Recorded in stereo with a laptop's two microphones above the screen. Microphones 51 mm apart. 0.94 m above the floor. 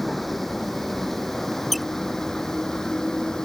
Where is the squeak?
Centre (ahead or behind).